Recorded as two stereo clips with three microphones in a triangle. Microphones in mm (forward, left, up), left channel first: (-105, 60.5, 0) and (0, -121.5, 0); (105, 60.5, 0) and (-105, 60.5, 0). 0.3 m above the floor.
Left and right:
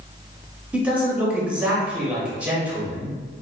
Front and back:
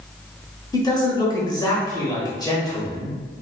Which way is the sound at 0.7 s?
10° left.